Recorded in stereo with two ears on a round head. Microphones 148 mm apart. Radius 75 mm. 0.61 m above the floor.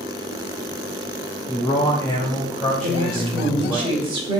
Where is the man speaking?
25° left (ahead or behind), 3 m; by 3.8 s 5° left (ahead or behind), 4.5 m.